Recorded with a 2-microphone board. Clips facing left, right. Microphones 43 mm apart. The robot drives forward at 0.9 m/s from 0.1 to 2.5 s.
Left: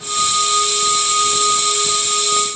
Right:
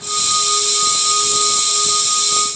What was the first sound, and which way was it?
Only background noise.